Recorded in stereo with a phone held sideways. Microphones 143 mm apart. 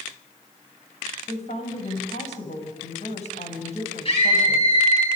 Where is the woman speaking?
50° left (ahead or behind), 7 m.